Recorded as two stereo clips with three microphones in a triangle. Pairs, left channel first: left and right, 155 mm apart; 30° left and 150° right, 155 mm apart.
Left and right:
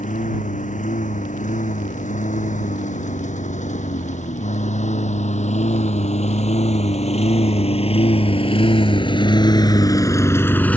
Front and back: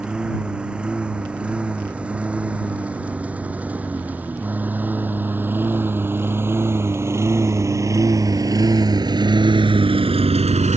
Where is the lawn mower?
125° left; by 10.8 s 170° left.